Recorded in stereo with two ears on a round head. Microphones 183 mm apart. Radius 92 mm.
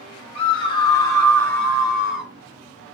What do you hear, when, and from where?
0.3 s a scream: 30° left (ahead or behind), 1.3 m; by 2.3 s 5° right (ahead or behind), 1.3 m